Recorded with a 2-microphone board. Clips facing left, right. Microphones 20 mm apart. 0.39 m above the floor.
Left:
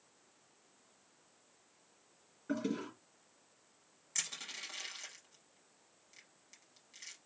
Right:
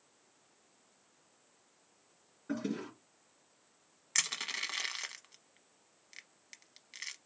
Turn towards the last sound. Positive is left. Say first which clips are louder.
# right 7 dB
turn(degrees=-55)  # may be behind; listen again after turning